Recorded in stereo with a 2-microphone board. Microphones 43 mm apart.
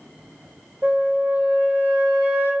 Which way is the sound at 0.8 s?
55° right (ahead or behind).